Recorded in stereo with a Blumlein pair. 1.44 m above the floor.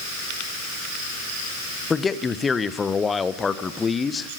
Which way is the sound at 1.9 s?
15° left.